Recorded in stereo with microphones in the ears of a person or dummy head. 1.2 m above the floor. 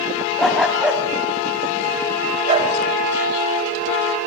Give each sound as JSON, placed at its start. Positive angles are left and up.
{"t": 0.4, "sound": "a dog barking", "side_deg": 0, "distance_m": 3.0}